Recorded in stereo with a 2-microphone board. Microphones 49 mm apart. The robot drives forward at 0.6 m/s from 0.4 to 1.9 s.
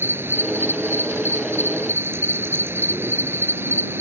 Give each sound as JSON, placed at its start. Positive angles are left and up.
{"t": 0.0, "sound": "an insect", "side_deg": -60}